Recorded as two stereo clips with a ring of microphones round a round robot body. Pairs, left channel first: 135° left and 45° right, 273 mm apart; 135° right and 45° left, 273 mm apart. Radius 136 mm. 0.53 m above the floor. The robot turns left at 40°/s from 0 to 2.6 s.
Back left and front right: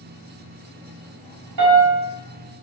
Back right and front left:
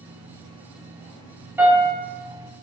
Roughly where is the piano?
Ahead right.